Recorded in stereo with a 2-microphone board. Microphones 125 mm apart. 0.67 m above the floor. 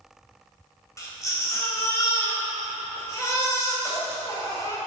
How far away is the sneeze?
I don't hear a sneeze.